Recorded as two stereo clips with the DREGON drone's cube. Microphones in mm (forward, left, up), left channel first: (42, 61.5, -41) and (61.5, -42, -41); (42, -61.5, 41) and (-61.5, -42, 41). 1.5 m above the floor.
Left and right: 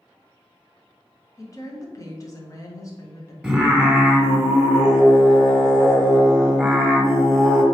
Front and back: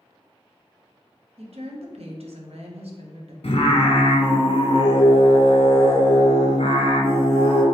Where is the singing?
5° left, 0.9 m.